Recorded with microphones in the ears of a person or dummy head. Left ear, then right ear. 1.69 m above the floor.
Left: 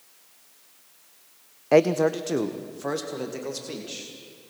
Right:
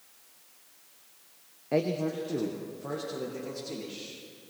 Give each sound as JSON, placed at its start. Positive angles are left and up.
{"t": 1.7, "sound": "a man speaking", "side_deg": 40, "distance_m": 0.5}